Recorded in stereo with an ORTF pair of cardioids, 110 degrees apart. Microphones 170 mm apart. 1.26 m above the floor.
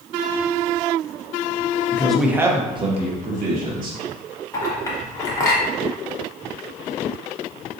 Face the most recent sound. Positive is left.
turn(degrees=20)